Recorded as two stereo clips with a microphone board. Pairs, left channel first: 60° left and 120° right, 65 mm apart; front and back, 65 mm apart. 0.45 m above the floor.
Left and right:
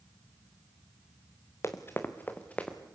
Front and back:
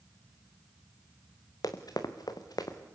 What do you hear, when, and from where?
1.6 s running footsteps: 15° left, 2 m; by 2.8 s 15° right, 3 m